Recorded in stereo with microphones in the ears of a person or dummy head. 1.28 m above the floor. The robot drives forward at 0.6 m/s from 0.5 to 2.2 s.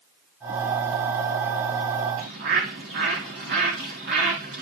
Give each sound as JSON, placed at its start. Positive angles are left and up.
{"t": 2.2, "sound": "a bird", "side_deg": -50, "distance_m": 1.6}